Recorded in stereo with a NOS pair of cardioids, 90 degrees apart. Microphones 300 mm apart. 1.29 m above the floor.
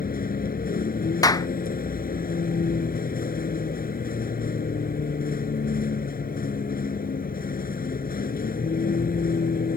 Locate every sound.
0.0 s a vehicle: 30° left
1.2 s a clap: 10° left